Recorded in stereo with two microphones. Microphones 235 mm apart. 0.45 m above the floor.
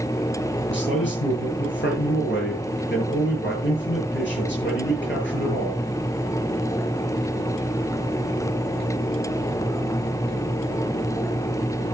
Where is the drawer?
I don't hear a drawer.